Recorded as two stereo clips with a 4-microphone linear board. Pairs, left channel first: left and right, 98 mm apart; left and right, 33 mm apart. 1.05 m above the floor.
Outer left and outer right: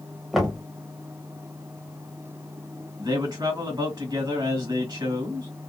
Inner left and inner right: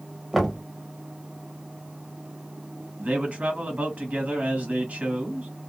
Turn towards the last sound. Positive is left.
turn(degrees=-45)  # may be behind; listen again after turning